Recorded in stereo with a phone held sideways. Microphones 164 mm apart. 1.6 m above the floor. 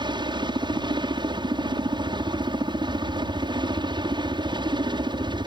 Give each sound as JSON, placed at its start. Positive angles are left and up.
{"t": 0.0, "sound": "a helicopter", "side_deg": -30}